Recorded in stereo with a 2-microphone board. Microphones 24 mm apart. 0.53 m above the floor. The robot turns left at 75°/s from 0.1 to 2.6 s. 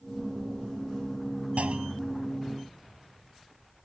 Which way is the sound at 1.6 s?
100° right.